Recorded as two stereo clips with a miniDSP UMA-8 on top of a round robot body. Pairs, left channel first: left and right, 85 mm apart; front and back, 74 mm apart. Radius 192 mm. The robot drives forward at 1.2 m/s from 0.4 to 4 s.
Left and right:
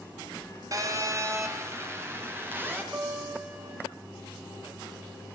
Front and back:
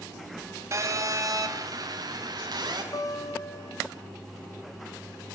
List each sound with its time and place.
0.7 s a phone buzzing: 135° right, 2.5 m; by 2.8 s 155° right, 4.5 m
2.9 s a guitar: 25° right, 2.5 m; by 3.8 s 50° right, 1.7 m